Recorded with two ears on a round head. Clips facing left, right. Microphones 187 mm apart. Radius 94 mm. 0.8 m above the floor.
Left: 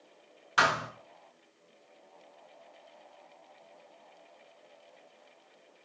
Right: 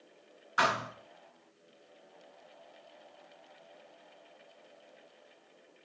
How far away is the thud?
About 2 m.